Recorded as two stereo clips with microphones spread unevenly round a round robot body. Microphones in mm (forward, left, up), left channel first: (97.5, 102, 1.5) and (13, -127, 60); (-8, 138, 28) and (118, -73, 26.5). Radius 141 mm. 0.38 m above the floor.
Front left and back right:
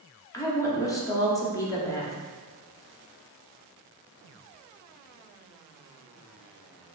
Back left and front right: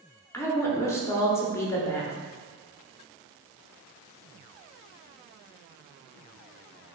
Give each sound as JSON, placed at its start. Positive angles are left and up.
{"t": 0.3, "sound": "a woman speaking", "azimuth_deg": 55, "distance_m": 0.9}